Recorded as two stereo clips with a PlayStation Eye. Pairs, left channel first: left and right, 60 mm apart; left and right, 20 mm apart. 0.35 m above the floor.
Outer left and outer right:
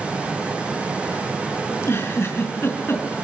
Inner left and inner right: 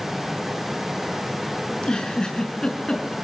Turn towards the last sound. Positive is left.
turn(degrees=45)  # may be behind; listen again after turning